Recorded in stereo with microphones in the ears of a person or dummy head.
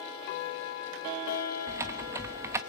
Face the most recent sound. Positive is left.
turn(degrees=-15)  # may be behind; listen again after turning